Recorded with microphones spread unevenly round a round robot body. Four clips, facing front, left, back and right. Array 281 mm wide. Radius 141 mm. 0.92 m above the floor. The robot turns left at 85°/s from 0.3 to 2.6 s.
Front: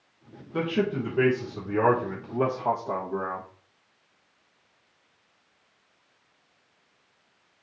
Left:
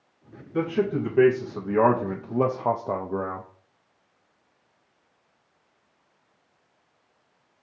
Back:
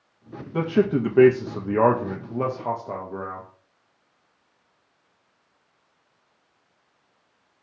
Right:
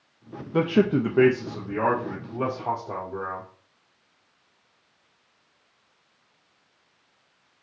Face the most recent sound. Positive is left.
turn(degrees=85)